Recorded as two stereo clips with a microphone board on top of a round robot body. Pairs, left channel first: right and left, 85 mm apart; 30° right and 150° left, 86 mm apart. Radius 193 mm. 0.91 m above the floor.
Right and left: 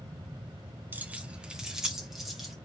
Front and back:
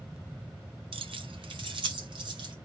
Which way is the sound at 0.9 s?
160° left.